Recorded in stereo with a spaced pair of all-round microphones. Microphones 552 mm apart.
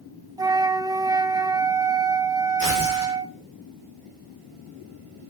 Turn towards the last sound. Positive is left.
turn(degrees=-35)  # may be behind; listen again after turning